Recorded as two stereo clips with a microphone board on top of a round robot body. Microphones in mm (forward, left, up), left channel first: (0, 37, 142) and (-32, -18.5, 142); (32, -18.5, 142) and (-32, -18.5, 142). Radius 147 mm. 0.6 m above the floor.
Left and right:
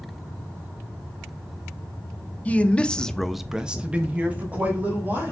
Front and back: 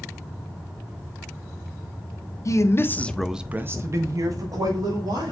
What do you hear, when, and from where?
2.5 s a man speaking: 5° right, 0.8 m; by 5.3 s 175° left, 1.5 m